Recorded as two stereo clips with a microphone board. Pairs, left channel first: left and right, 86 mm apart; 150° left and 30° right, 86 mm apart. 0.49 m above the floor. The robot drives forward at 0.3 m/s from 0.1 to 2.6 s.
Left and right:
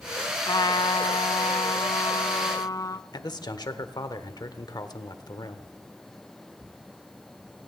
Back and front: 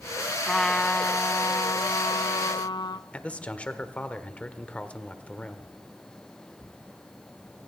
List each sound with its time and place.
0.5 s a trumpet: 65° left, 0.6 m; by 3.0 s 130° left, 0.7 m
3.1 s a man speaking: 75° left, 1.1 m